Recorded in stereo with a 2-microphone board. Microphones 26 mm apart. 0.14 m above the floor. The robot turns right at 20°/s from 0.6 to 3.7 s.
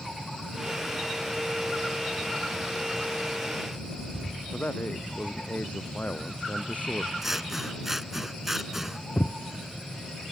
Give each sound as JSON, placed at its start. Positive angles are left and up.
{"t": 4.5, "sound": "a man speaking", "side_deg": 65}
{"t": 7.2, "sound": "scissors", "side_deg": -10}
{"t": 9.2, "sound": "footsteps", "side_deg": 75}